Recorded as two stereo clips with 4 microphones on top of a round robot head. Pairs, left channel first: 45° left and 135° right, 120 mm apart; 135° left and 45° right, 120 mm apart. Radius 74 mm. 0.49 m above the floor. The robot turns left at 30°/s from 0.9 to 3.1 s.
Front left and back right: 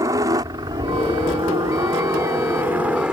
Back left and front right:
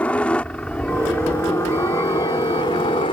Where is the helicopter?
160° right; by 3.1 s 150° left.